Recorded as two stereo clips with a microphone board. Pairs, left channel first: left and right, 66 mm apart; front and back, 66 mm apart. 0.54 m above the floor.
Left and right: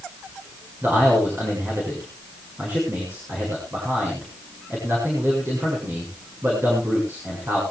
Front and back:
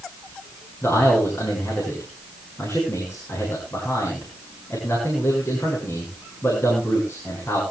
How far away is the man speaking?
About 8 m.